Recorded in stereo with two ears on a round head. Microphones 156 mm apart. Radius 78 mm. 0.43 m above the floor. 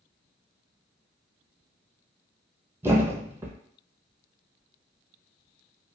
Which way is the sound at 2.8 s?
15° right (ahead or behind).